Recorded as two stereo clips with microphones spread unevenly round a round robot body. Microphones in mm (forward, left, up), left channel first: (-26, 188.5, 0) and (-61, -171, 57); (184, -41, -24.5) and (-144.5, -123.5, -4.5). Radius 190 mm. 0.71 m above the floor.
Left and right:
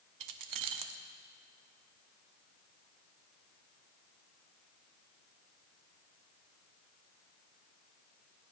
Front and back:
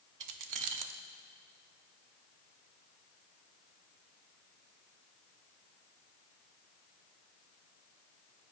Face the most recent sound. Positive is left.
turn(degrees=-135)